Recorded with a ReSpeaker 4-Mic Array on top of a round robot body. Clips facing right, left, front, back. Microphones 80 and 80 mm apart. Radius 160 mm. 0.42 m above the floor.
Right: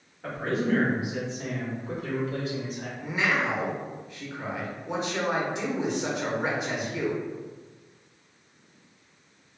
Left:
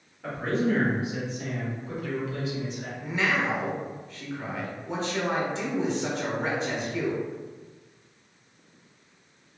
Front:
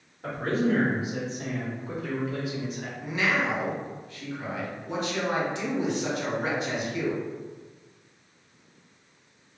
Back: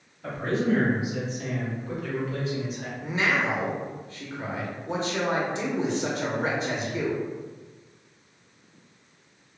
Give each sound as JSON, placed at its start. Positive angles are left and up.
{"t": 0.2, "sound": "a man speaking", "azimuth_deg": -5, "distance_m": 1.5}
{"t": 3.0, "sound": "a man speaking", "azimuth_deg": -165, "distance_m": 0.8}